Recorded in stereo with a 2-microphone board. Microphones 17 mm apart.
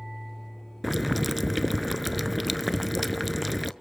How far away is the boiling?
About 0.6 m.